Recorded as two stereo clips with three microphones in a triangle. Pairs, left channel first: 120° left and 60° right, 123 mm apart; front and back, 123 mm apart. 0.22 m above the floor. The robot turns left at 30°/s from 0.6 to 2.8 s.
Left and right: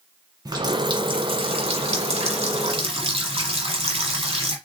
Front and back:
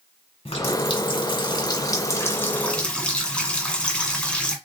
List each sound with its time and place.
0.5 s a running tap: 15° right, 1.3 m; by 4.6 s 80° right, 1.3 m